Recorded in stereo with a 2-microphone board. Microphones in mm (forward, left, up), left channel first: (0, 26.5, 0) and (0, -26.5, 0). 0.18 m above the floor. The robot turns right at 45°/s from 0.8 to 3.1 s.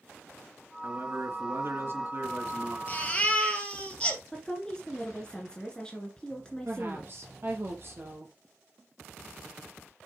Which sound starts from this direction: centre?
A woman speaking, at 4.3 s.